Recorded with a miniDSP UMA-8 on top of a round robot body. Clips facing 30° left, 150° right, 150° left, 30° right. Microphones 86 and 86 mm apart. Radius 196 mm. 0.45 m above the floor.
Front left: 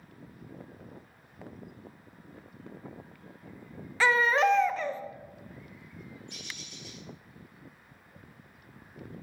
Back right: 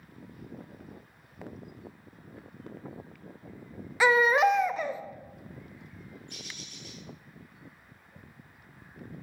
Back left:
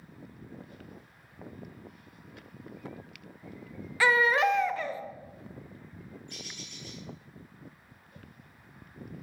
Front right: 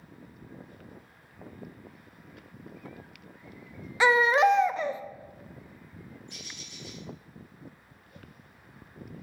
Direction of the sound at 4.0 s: 80° right.